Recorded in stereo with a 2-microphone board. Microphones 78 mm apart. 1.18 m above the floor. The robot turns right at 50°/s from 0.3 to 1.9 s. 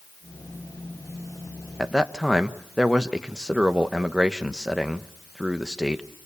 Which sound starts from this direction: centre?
A man speaking, at 1.8 s.